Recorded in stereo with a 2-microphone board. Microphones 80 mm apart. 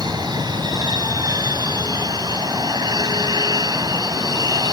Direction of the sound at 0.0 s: 60° right (ahead or behind).